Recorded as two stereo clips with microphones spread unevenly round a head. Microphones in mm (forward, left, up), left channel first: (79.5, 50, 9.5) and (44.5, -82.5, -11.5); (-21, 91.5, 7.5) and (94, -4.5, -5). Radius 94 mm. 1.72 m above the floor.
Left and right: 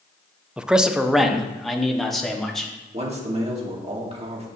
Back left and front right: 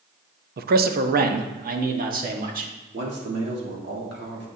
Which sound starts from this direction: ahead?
A man speaking, at 0.6 s.